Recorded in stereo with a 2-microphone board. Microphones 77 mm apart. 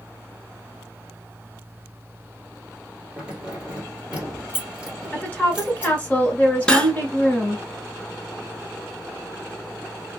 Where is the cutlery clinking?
15° left (ahead or behind), 0.6 m.